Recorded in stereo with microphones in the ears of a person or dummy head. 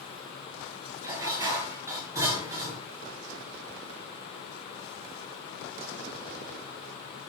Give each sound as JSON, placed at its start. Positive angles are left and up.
{"t": 1.0, "sound": "dishes clattering", "side_deg": -20, "distance_m": 5.5}